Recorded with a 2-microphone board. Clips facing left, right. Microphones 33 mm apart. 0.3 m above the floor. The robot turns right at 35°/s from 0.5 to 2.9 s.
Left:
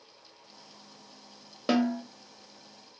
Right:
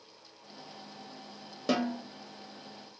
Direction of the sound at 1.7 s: 20° left (ahead or behind).